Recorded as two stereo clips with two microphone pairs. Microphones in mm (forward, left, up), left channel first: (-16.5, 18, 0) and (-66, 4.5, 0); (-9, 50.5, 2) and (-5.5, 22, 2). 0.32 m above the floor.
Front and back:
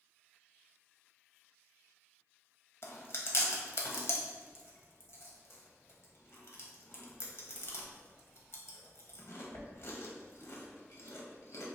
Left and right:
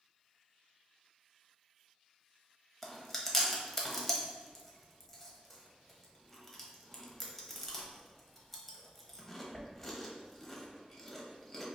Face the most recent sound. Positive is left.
turn(degrees=20)